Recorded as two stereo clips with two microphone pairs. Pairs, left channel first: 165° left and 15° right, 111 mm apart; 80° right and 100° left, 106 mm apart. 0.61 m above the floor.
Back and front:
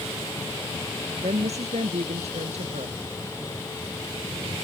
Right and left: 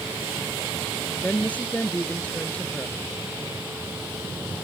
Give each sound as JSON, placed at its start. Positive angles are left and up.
{"t": 1.2, "sound": "a woman speaking", "azimuth_deg": -5}